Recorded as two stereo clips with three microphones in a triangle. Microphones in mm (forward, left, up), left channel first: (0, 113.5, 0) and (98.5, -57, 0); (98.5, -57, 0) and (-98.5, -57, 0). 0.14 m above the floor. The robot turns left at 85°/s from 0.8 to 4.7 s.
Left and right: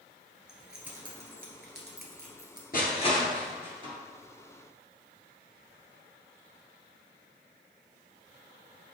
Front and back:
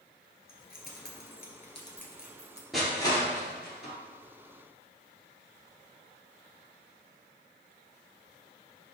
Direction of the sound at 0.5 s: 25° left.